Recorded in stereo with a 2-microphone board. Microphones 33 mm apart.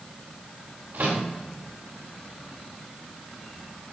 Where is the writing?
No writing in this recording.